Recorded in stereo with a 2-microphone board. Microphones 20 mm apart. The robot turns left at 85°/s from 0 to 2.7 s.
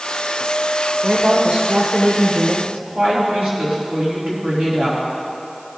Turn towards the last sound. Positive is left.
turn(degrees=-60)  # may be behind; listen again after turning